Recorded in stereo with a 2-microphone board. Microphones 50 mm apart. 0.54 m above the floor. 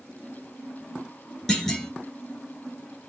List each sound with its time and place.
1.5 s a clunk: 15° left (ahead or behind), 1.2 m